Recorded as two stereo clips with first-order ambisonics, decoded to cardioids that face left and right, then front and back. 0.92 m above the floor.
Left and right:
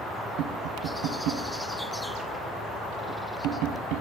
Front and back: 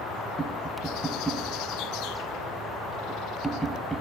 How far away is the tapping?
About 3.5 m.